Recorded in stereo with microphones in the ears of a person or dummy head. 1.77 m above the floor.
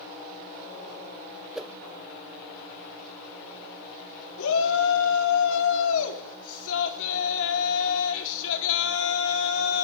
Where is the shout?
80° left, 4.5 m.